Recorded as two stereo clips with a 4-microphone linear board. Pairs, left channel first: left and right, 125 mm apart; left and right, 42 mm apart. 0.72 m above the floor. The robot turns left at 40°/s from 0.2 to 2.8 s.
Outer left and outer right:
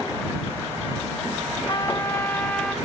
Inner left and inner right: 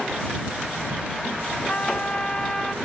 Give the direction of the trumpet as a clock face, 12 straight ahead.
10 o'clock.